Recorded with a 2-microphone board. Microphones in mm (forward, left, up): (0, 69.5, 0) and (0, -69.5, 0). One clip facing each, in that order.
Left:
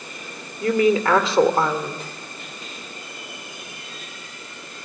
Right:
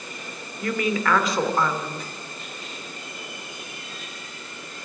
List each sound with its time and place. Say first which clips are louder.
0.6 s a woman speaking: left 7 dB; 30° left (ahead or behind), 1.8 m